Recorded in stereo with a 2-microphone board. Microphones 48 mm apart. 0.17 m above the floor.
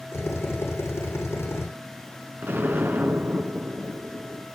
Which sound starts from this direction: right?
An explosion, at 2.4 s.